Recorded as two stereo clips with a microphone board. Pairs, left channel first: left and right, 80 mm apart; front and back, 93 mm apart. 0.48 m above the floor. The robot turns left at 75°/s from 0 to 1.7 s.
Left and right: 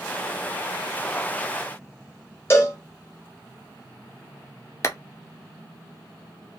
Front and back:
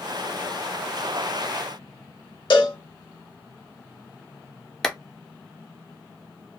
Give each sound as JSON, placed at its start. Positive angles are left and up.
{"t": 2.5, "sound": "a cowbell", "azimuth_deg": 35, "distance_m": 0.9}
{"t": 4.8, "sound": "a clap", "azimuth_deg": 80, "distance_m": 0.5}